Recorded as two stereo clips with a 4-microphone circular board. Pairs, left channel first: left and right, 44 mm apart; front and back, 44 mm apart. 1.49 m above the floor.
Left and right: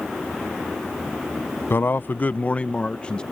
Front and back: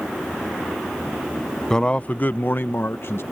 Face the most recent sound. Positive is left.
turn(degrees=25)